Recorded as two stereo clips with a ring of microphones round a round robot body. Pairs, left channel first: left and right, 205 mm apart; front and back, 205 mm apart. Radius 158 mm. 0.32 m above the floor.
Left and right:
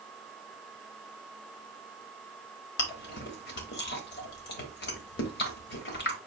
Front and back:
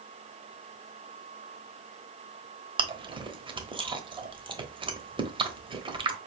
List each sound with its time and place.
2.8 s chewing: 115° left, 1.1 m